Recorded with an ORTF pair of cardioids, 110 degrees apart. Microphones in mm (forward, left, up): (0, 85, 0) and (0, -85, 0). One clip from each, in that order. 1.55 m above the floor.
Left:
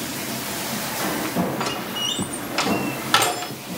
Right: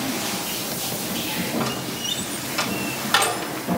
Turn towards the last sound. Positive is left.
turn(degrees=35)